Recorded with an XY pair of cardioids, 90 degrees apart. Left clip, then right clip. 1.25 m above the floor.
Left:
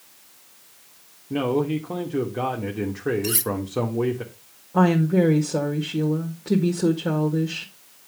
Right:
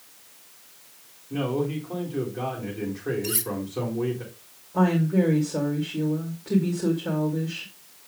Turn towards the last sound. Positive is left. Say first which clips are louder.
# left 4 dB
turn(degrees=60)